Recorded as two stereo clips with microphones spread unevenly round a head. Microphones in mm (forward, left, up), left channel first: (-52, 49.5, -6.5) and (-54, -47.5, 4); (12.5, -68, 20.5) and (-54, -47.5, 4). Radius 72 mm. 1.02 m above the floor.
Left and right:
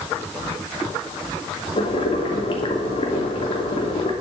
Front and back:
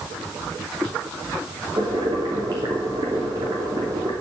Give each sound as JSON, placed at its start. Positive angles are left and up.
{"t": 1.8, "sound": "boiling", "azimuth_deg": 115, "distance_m": 2.5}